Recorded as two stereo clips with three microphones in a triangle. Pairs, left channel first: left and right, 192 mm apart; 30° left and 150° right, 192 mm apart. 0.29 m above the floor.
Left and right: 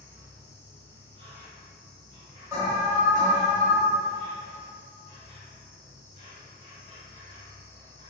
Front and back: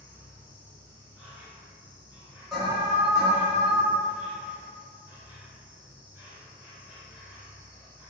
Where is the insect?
130° left, 1.0 m.